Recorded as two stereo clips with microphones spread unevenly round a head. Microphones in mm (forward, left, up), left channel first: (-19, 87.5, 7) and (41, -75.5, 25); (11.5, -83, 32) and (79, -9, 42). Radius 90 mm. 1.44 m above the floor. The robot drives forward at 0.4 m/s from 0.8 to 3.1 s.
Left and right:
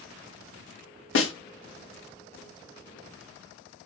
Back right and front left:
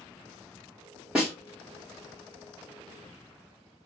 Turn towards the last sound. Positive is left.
turn(degrees=160)